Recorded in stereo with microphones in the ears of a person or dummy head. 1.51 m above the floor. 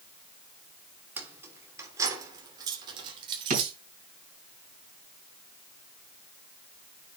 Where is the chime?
I don't hear a chime.